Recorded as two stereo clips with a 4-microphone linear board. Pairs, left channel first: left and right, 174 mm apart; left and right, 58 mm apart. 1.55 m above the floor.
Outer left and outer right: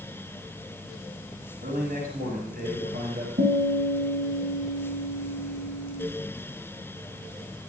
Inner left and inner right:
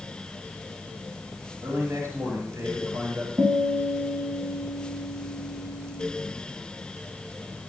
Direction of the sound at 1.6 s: 60° right (ahead or behind).